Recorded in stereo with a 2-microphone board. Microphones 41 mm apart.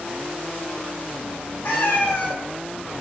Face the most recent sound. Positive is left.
turn(degrees=65)  # may be behind; listen again after turning